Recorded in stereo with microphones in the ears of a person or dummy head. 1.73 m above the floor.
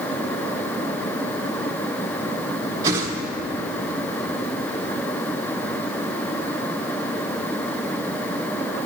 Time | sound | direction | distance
2.8 | a whoosh | 20° right (ahead or behind) | 1.5 m